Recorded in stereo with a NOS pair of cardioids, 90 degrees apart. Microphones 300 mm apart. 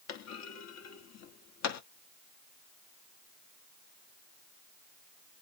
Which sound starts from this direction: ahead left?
A clunk, at 0.1 s.